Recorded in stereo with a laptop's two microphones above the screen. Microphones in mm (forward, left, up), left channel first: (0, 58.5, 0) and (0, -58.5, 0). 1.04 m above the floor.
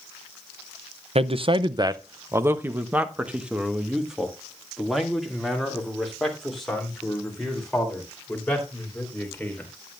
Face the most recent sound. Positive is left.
turn(degrees=5)  # may be behind; listen again after turning